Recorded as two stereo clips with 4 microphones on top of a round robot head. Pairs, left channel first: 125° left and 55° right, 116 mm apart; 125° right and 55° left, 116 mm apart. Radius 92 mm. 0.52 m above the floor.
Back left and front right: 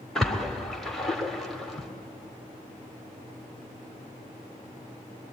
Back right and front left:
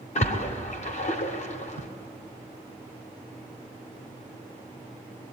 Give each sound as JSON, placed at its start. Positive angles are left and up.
{"t": 0.1, "sound": "a splash", "azimuth_deg": -150, "distance_m": 2.0}